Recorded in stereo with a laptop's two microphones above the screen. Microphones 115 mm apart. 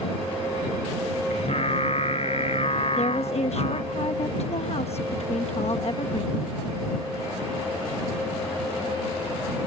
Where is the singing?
70° left (ahead or behind).